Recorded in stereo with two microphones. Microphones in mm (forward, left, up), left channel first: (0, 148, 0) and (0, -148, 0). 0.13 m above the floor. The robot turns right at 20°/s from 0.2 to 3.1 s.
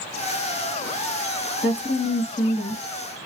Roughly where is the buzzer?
No buzzer in this recording.